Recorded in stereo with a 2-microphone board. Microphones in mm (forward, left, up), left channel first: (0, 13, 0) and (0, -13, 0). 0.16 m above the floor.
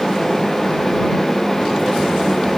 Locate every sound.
Only background noise.